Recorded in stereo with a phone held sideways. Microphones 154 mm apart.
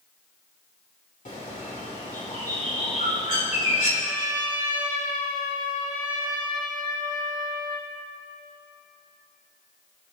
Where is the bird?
65° left (ahead or behind), 3 m.